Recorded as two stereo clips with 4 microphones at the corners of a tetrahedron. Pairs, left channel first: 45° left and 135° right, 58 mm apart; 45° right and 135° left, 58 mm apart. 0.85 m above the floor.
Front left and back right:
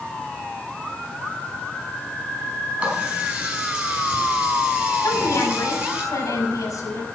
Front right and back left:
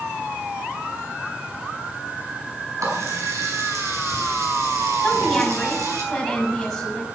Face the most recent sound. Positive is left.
turn(degrees=40)